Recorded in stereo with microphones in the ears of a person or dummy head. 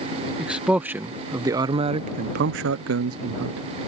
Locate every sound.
0.4 s a man speaking: 5° right (ahead or behind); by 3.6 s 60° right (ahead or behind)